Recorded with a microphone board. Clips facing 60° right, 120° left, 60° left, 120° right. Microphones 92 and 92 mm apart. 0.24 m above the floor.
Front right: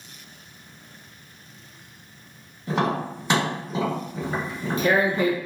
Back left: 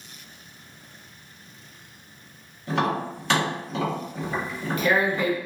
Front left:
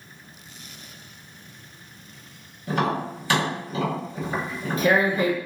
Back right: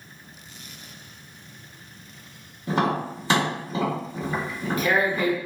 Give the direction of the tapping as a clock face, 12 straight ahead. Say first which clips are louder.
Front right 1 dB, back right 1 dB; 4 o'clock.